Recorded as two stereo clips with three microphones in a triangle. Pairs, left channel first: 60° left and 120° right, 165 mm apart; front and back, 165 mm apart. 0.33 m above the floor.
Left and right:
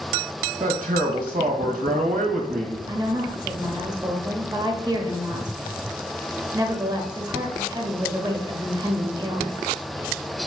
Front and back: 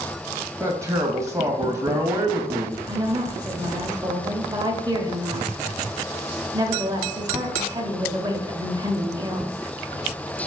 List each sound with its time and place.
0.6 s a man speaking: 115° right, 1.6 m
2.9 s a woman speaking: 150° right, 1.1 m